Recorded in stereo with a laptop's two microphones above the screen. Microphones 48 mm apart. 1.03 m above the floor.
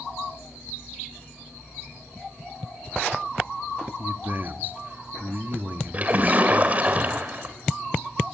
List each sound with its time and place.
4.0 s a man speaking: 40° right (ahead or behind), 1.8 m
5.9 s a splash: 30° right (ahead or behind), 2.5 m